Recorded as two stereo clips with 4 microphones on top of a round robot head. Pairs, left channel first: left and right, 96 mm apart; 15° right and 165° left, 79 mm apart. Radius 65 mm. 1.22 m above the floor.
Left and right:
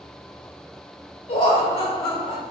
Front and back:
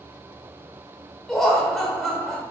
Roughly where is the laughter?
Left.